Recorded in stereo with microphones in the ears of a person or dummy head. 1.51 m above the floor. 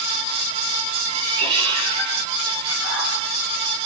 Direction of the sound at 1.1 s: 30° right (ahead or behind).